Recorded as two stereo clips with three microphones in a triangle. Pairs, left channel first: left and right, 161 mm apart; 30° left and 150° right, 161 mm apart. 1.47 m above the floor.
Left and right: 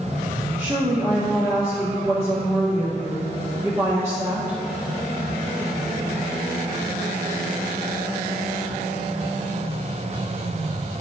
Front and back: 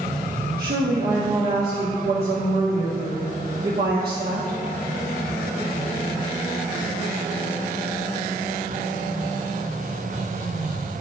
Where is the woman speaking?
165° right, 1.2 m.